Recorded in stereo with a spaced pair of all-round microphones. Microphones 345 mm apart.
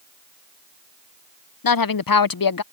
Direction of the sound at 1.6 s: 75° left (ahead or behind).